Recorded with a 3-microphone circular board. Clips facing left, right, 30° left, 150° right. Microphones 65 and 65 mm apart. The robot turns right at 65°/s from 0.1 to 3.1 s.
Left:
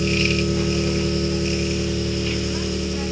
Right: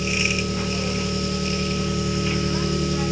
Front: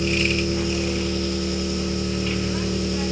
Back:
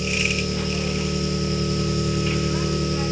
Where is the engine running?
65° left, 1.3 m; by 3.1 s 100° right, 1.3 m.